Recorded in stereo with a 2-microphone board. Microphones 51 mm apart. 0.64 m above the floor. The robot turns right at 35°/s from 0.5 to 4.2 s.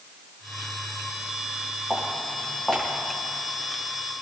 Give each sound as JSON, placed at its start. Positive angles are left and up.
{"t": 1.9, "sound": "footsteps", "side_deg": -15, "distance_m": 6.5}